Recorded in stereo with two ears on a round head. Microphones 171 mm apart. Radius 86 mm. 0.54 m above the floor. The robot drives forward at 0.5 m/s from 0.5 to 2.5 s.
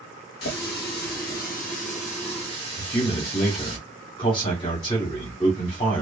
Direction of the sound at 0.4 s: 55° left (ahead or behind).